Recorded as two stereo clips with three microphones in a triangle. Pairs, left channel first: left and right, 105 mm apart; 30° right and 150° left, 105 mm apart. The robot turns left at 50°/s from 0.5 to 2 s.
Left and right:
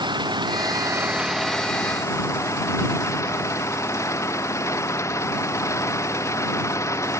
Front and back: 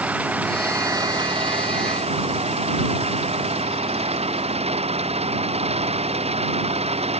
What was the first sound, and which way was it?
An engine running, 135° right.